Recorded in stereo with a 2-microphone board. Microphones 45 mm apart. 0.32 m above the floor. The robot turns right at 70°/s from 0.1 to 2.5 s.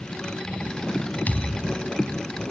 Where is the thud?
140° left, 0.6 m; by 1.9 s 175° right, 0.6 m.